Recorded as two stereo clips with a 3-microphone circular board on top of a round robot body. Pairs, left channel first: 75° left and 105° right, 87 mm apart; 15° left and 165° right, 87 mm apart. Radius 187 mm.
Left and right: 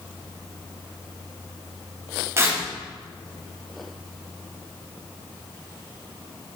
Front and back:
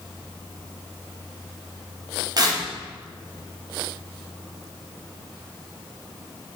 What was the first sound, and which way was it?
Tearing paper, 155° right.